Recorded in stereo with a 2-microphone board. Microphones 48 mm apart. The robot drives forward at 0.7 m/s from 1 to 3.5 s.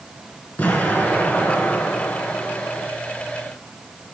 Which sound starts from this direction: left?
An explosion, at 0.6 s.